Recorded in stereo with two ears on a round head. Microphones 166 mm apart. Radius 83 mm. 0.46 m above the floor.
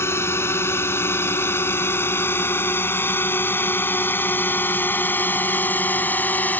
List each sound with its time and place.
0.0 s a drone: 15° left (ahead or behind); by 6.6 s 10° left (ahead or behind)